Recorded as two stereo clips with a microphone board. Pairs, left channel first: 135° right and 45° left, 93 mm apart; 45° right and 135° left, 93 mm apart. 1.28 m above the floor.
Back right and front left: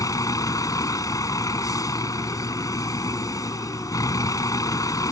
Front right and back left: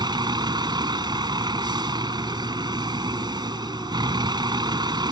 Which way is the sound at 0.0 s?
175° left.